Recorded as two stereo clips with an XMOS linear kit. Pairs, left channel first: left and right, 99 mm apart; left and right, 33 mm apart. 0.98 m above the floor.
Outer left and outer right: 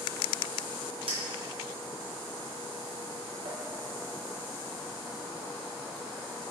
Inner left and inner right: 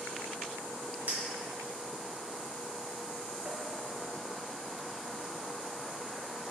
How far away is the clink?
About 0.8 m.